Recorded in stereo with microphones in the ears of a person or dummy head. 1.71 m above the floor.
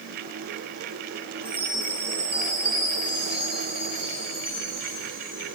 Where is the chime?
30° left (ahead or behind), 5.5 m.